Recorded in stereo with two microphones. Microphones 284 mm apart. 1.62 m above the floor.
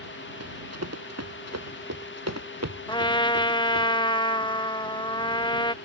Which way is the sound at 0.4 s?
60° right (ahead or behind).